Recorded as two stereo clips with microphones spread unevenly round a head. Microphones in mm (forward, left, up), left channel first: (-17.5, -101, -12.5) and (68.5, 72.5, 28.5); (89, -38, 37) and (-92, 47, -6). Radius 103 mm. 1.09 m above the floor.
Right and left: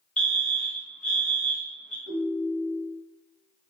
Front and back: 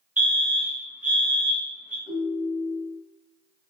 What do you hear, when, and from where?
0.2 s a fire alarm: 160° right, 1.1 m
2.1 s a ringtone: 30° left, 1.3 m